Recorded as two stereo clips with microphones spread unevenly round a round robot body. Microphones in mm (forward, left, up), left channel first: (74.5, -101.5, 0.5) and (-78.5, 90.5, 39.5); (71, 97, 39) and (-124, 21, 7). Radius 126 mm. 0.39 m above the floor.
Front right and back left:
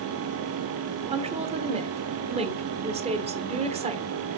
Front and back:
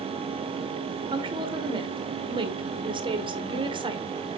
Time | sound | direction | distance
1.1 | a woman speaking | 170° right | 1.4 m